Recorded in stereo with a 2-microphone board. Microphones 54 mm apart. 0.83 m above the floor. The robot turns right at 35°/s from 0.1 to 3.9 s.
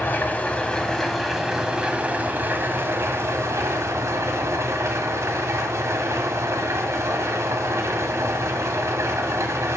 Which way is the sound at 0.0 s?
140° left.